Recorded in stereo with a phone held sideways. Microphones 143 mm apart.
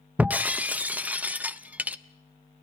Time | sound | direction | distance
0.2 | breaking glass | 10° right (ahead or behind) | 0.6 m